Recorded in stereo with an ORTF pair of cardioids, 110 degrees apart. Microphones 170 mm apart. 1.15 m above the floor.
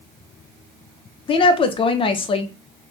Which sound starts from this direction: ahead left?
A woman speaking, at 1.3 s.